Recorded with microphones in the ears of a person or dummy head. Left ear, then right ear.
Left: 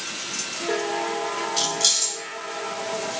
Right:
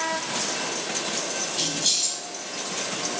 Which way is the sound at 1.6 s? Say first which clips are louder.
Left 3 dB; 85° left.